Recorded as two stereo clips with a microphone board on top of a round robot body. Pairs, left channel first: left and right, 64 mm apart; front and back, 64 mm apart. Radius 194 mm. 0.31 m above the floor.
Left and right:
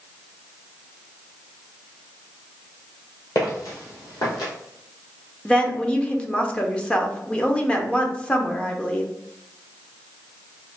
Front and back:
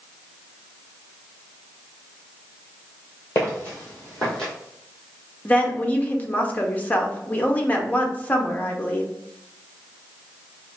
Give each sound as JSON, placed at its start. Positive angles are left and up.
{"t": 3.4, "sound": "footsteps", "azimuth_deg": 55, "distance_m": 1.0}
{"t": 5.5, "sound": "a woman speaking", "azimuth_deg": 35, "distance_m": 0.9}